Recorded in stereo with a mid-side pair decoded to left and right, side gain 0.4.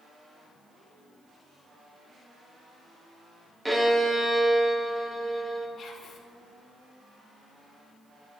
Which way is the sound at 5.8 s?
55° left.